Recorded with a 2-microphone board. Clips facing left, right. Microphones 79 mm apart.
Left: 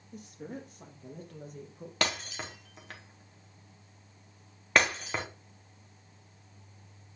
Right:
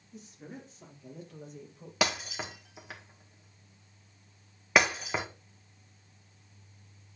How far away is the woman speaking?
About 4 m.